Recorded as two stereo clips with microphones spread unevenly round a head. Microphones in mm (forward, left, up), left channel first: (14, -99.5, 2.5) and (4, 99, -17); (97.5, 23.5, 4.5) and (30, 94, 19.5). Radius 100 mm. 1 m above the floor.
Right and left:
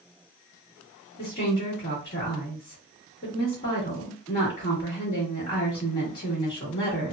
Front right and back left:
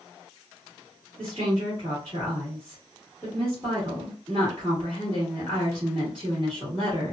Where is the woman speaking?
140° right, 1.3 m.